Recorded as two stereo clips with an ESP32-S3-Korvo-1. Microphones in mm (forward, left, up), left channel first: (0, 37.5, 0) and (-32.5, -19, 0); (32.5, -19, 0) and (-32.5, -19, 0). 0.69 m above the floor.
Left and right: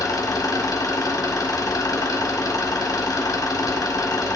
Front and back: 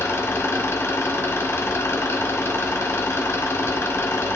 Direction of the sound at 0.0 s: 45° left.